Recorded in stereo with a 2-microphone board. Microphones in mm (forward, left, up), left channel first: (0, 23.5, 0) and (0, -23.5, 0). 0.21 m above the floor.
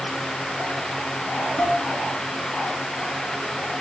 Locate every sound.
1.6 s dishes clattering: 15° left (ahead or behind), 6 m